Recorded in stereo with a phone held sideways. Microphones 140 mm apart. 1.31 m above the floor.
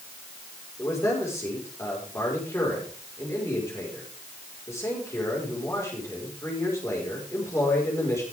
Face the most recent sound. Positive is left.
turn(degrees=20)  # may be behind; listen again after turning